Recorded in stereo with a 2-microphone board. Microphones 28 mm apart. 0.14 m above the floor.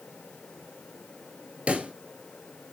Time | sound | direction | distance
1.7 | a pop | 50° right (ahead or behind) | 1.4 m